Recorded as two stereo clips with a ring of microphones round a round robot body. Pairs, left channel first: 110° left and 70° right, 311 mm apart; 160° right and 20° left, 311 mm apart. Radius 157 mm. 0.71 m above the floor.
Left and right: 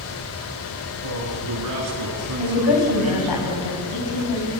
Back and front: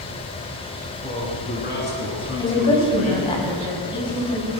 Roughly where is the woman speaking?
Behind left.